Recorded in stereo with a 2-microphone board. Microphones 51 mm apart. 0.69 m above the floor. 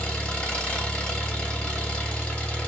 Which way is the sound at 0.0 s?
25° left (ahead or behind).